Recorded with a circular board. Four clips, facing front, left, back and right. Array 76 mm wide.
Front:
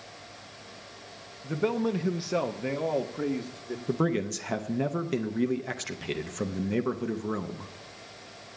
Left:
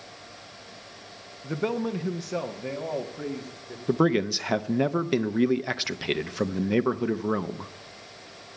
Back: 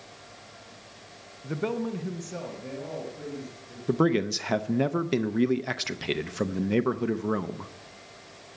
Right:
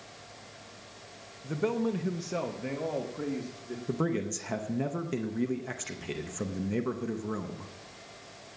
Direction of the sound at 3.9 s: 115° left.